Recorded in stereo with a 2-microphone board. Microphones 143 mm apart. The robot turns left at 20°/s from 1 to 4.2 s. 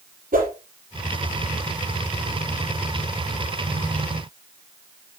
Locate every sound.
0.3 s a whoosh: 70° right (ahead or behind), 5 m